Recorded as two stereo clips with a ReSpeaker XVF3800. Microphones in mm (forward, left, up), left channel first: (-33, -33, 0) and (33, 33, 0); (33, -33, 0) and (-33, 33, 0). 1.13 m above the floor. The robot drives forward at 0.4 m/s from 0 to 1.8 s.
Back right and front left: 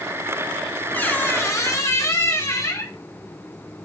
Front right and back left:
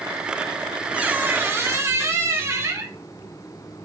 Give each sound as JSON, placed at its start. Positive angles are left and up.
{"t": 0.9, "sound": "a squeak", "azimuth_deg": -170, "distance_m": 0.5}